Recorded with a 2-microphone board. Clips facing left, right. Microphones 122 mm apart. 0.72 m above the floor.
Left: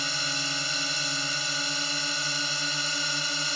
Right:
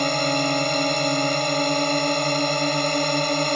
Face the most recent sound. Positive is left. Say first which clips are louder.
# right 14 dB
turn(degrees=-60)  # may be behind; listen again after turning